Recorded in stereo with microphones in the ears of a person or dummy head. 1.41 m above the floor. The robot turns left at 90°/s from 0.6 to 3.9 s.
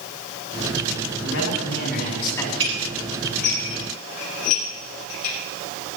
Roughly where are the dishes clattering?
Right.